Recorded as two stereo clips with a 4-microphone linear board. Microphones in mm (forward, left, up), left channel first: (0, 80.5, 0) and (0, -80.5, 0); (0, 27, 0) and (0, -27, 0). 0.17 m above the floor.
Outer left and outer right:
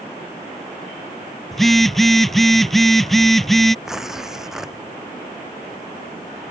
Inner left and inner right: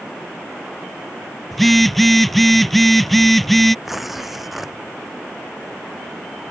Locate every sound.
1.5 s a phone buzzing: centre (ahead or behind)
3.9 s tearing paper: 5° right (ahead or behind)